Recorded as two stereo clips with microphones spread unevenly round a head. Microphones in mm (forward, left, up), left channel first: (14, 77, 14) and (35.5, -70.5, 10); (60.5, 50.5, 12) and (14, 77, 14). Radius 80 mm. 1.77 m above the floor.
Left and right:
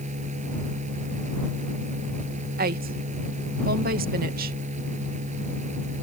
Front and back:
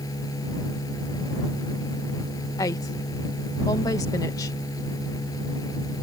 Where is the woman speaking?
55° right.